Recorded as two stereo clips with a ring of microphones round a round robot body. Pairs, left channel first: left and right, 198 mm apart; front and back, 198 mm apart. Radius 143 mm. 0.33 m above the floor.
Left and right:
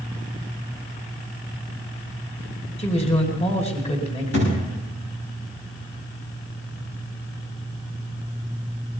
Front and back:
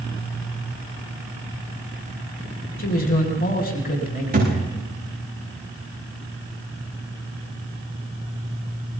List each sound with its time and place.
2.8 s a man speaking: 35° left, 2.5 m
4.3 s a thud: 135° left, 9.5 m